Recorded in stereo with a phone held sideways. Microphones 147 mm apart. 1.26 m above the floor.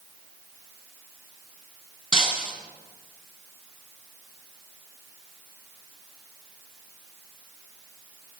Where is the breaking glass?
35° left (ahead or behind), 5 m.